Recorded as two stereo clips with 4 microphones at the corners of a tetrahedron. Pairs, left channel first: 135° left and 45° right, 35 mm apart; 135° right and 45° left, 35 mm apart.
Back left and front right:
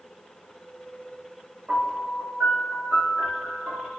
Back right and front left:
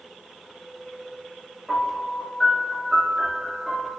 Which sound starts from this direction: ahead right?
A piano, at 1.7 s.